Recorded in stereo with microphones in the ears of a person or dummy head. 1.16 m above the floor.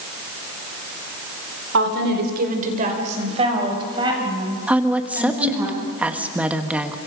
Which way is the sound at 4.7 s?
5° right (ahead or behind).